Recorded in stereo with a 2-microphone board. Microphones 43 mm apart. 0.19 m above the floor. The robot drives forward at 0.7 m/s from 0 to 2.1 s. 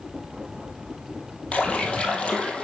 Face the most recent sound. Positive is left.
turn(degrees=25)  # may be behind; listen again after turning